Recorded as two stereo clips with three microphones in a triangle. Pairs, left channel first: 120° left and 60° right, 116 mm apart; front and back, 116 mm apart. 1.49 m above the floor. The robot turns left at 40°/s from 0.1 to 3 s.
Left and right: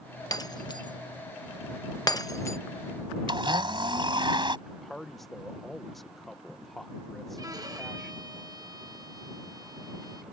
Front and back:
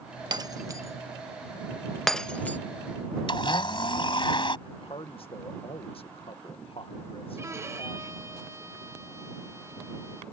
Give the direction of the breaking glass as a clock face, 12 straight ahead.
7 o'clock.